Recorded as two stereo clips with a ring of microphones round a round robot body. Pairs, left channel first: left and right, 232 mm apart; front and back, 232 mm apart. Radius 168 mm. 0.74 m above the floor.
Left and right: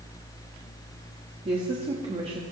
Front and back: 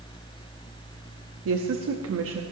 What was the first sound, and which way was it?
A woman speaking, 160° right.